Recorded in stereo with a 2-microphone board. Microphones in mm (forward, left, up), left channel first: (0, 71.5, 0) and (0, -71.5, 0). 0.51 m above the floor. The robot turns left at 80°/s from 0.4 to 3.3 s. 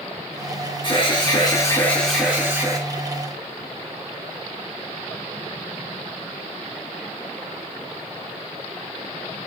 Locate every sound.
0.8 s an alarm: 105° left, 2.5 m; by 2.8 s 55° right, 2.5 m